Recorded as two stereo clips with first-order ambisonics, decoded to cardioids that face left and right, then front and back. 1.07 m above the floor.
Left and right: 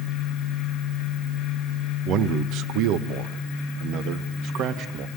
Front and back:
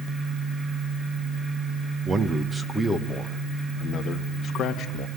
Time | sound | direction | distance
2.0 | a man speaking | 120° right | 1.0 m